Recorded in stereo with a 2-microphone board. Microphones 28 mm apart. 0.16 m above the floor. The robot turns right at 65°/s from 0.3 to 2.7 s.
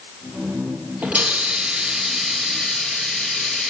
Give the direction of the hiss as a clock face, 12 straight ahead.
3 o'clock.